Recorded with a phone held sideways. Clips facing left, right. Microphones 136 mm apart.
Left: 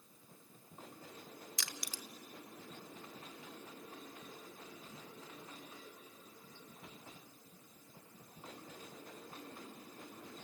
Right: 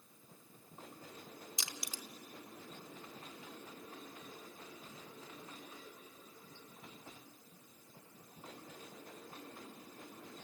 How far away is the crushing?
About 0.6 m.